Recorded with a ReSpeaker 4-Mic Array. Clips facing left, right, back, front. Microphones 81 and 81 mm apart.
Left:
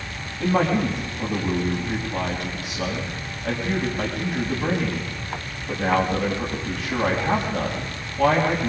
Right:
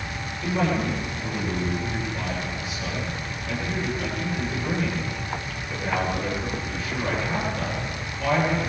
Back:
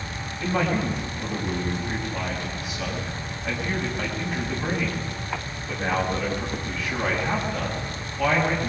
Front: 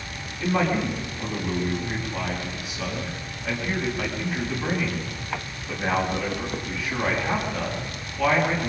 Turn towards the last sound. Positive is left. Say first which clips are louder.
# left 4 dB, front 1 dB
turn(degrees=100)